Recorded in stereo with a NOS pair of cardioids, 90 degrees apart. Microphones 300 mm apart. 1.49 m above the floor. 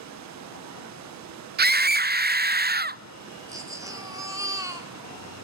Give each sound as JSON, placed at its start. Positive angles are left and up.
{"t": 0.0, "sound": "running water", "azimuth_deg": -65, "distance_m": 1.0}
{"t": 1.6, "sound": "a scream", "azimuth_deg": -35, "distance_m": 0.6}
{"t": 3.5, "sound": "a baby crying", "azimuth_deg": -10, "distance_m": 2.5}